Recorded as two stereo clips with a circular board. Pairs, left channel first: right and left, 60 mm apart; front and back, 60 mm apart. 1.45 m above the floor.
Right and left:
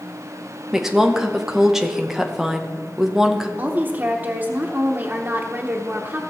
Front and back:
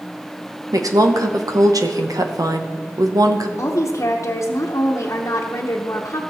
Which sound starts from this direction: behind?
A woman speaking, at 0.7 s.